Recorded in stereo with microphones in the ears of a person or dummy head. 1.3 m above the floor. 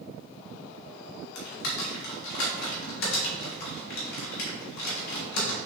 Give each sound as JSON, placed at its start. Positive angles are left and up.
{"t": 1.4, "sound": "typing on a keyboard", "side_deg": 55, "distance_m": 1.1}